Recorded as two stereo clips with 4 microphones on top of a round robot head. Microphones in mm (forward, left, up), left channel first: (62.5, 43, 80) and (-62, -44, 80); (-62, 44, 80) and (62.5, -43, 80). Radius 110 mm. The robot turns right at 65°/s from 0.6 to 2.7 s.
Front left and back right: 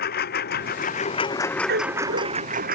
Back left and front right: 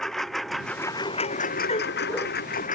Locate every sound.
0.0 s a lawn mower: 60° left; by 2.8 s 175° right
1.7 s a dog barking: 165° right; by 2.3 s 125° right